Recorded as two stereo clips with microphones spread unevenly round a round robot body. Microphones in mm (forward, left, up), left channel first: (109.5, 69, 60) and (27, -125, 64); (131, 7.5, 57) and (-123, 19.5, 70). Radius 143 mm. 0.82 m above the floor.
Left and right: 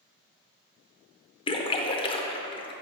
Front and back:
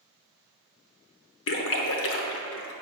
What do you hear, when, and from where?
1.5 s a splash: 10° left, 0.5 m